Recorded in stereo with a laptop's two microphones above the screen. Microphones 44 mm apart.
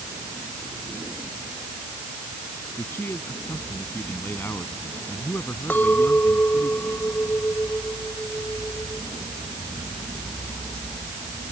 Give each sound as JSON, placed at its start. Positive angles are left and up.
{"t": 2.8, "sound": "a man speaking", "side_deg": 55}
{"t": 5.7, "sound": "a clink", "side_deg": 45}